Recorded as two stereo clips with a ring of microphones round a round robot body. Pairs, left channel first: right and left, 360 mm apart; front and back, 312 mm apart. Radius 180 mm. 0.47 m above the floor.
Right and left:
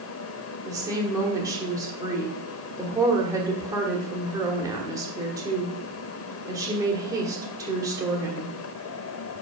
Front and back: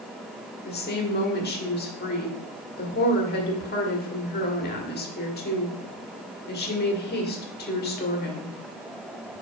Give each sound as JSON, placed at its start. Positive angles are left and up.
{"t": 0.7, "sound": "a woman speaking", "azimuth_deg": 15, "distance_m": 1.4}